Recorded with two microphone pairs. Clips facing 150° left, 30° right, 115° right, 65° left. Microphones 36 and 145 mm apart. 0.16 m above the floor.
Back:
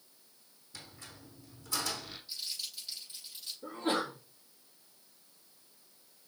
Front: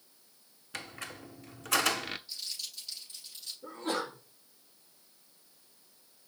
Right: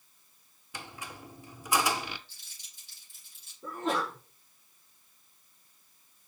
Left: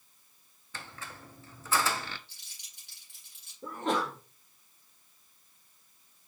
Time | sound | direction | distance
0.7 | a squeak | 45° right | 0.5 m
2.3 | crumpling | 70° left | 5 m
3.6 | a sneeze | 75° left | 3.5 m